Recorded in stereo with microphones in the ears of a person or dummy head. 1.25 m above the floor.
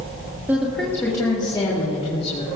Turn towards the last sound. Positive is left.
turn(degrees=40)  # may be behind; listen again after turning